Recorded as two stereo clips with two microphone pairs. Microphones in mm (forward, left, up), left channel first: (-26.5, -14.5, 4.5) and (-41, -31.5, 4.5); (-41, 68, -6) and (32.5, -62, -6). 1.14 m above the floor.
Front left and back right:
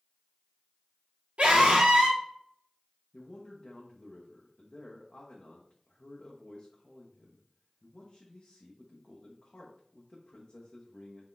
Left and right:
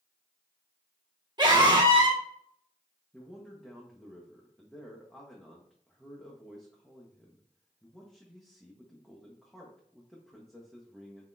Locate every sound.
1.4 s a scream: 120° right, 1.7 m
3.1 s a man speaking: 35° left, 0.8 m